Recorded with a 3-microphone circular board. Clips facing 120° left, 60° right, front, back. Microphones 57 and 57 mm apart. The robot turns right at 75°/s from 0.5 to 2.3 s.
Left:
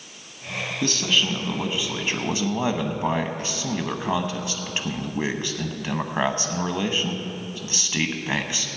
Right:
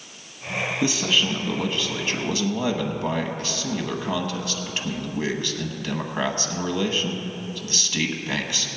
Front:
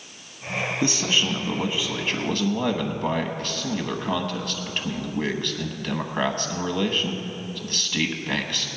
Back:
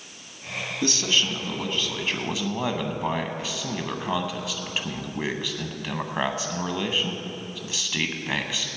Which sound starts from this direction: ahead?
A man speaking, at 0.8 s.